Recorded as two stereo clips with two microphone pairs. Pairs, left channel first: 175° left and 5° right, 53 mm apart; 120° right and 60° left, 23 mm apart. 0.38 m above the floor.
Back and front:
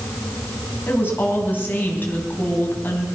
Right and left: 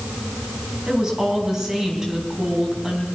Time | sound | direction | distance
0.9 | a woman speaking | 125° left | 3.5 m